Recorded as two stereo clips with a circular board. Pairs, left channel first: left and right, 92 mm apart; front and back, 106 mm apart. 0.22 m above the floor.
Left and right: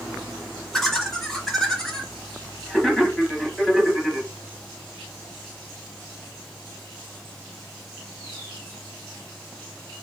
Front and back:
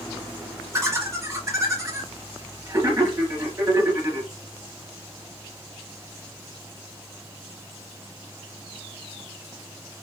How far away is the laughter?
About 1.1 m.